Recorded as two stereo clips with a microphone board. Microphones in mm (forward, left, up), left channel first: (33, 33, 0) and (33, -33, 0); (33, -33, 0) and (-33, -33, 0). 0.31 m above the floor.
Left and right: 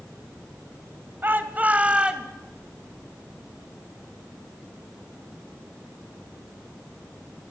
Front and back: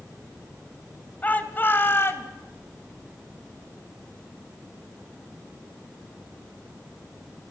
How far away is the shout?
About 1.9 m.